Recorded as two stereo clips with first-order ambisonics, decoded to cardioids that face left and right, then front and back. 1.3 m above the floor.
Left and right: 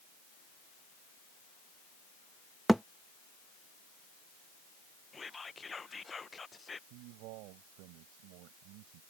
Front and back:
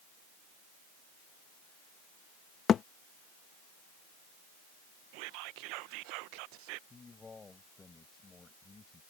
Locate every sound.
2.7 s a thud: 5° right
5.1 s whispering: 165° left
6.9 s a man speaking: 75° right